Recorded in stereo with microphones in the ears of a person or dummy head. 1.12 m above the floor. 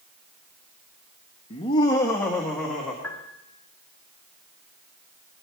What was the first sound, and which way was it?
Laughter, 35° left (ahead or behind).